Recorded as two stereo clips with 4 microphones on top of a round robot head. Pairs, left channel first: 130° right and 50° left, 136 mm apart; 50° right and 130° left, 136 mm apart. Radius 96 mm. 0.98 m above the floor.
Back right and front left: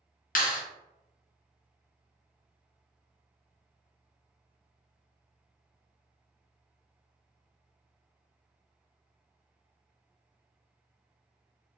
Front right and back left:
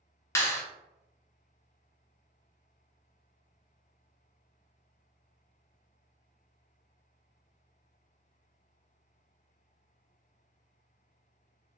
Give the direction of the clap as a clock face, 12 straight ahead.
4 o'clock.